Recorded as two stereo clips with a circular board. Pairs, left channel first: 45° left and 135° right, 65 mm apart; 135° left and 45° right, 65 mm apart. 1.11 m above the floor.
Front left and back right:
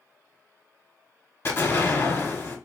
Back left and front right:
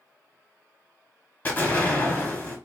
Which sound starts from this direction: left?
An explosion, at 1.4 s.